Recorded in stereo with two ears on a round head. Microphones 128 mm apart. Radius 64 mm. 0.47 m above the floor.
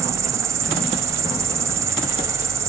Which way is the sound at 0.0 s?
20° right (ahead or behind).